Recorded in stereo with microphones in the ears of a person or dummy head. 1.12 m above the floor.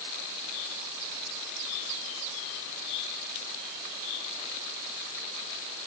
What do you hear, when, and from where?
Only background noise.